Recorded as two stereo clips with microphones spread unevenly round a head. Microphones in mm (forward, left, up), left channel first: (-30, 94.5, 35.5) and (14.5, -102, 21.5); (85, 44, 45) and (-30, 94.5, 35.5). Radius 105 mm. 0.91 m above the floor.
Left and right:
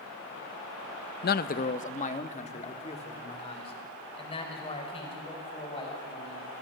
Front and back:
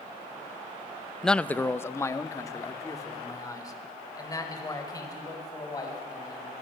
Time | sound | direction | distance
1.2 | a man speaking | 65° left | 0.6 m